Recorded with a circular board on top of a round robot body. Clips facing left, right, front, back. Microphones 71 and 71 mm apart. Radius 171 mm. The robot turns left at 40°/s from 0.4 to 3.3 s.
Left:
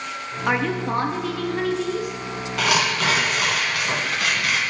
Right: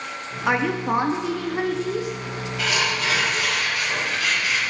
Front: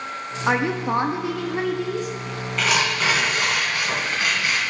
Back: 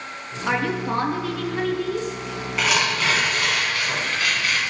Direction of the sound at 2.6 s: 95° left.